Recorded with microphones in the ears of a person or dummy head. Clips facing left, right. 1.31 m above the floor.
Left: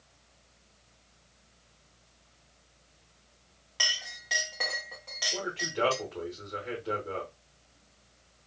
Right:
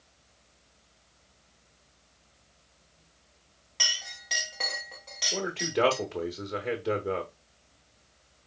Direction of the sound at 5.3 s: 55° right (ahead or behind).